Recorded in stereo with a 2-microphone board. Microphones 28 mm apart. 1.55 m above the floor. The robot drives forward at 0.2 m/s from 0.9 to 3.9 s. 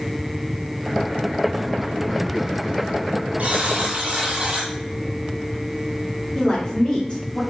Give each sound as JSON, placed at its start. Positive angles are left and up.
{"t": 3.4, "sound": "a buzzer", "side_deg": -50, "distance_m": 1.9}
{"t": 6.3, "sound": "a woman speaking", "side_deg": 35, "distance_m": 1.9}